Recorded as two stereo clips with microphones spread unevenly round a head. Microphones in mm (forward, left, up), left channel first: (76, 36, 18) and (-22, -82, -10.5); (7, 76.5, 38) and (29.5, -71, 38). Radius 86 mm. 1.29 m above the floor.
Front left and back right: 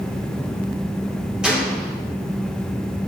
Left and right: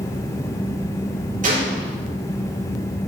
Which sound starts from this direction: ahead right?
A gunshot, at 1.4 s.